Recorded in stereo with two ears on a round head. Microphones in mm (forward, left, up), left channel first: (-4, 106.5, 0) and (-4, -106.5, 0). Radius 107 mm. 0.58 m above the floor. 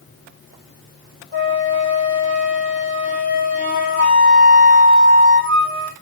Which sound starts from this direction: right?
A flute, at 1.3 s.